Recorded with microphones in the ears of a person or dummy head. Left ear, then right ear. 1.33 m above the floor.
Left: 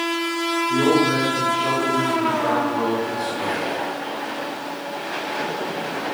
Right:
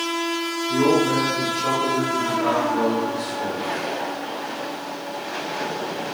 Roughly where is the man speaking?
Centre.